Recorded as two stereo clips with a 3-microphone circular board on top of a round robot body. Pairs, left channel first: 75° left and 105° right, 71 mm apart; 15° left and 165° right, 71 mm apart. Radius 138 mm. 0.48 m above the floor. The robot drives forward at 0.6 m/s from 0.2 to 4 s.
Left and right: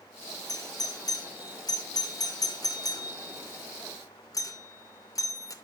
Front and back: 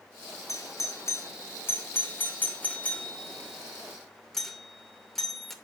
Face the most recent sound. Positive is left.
turn(degrees=100)